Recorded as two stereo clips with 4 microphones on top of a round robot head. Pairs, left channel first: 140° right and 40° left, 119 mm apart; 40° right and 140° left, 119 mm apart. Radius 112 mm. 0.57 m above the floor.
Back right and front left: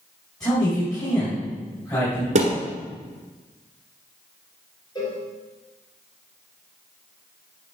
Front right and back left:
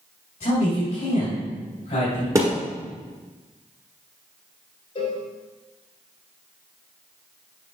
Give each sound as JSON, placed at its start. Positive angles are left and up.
{"t": 0.4, "sound": "a man speaking", "azimuth_deg": -80, "distance_m": 4.0}
{"t": 2.4, "sound": "a thud", "azimuth_deg": 70, "distance_m": 1.4}
{"t": 5.0, "sound": "a cowbell", "azimuth_deg": -80, "distance_m": 3.0}